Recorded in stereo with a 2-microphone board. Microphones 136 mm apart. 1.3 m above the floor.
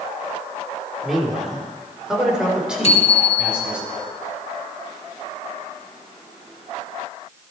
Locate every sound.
1.0 s a man speaking: centre (ahead or behind), 3 m; by 3.8 s 5° right (ahead or behind), 5.5 m
2.8 s a bicycle bell: 45° left (ahead or behind), 2.5 m